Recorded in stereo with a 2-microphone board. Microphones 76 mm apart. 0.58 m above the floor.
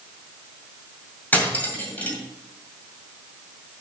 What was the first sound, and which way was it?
Cutlery clinking, 20° left (ahead or behind).